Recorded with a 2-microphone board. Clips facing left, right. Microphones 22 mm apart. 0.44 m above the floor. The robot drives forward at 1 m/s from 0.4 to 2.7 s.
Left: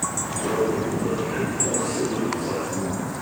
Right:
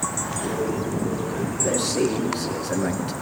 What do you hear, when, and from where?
1.6 s a man speaking: 75° right (ahead or behind), 5 m; by 3.1 s 65° right (ahead or behind), 5.5 m